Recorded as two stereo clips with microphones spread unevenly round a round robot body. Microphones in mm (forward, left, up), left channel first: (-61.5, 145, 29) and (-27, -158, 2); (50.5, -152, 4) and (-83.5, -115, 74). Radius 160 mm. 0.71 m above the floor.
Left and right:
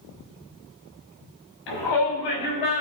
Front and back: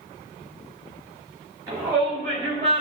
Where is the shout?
85° left, 7 m; by 2.8 s 90° left, 6.5 m.